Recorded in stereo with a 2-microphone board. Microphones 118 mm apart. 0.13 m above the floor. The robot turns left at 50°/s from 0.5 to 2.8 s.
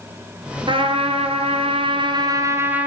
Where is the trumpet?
60° right, 1.3 m; by 2.9 s 165° right, 1.3 m.